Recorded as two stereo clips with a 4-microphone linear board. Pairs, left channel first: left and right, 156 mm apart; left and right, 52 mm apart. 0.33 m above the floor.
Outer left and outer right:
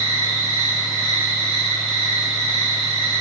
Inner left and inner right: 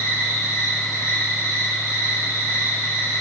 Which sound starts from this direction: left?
An insect, at 0.0 s.